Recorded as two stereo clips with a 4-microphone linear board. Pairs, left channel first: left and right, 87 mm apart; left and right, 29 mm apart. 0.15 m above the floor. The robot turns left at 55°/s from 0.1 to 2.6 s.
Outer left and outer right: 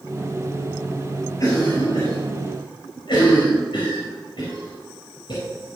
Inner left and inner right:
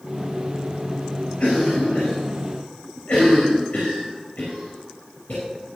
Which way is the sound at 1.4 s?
35° left (ahead or behind).